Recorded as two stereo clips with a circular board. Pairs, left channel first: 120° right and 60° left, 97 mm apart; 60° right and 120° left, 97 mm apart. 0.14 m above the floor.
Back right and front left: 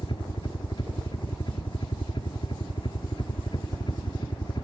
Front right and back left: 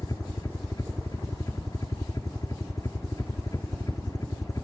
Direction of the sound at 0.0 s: 105° right.